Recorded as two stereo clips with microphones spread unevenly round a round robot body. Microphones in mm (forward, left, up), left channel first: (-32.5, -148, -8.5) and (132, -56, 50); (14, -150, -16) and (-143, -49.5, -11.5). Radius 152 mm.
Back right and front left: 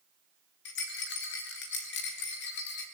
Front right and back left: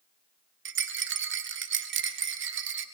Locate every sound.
0.7 s a rattle: 165° left, 1.4 m